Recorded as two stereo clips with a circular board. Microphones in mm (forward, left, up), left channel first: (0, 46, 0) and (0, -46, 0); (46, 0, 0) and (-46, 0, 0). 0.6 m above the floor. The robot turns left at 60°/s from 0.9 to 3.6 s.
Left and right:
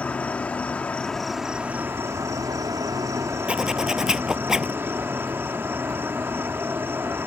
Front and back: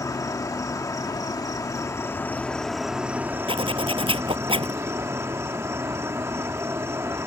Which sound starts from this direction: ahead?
An insect, at 0.0 s.